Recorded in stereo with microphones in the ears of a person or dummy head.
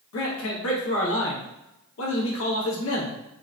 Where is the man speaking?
85° left, 1.1 m.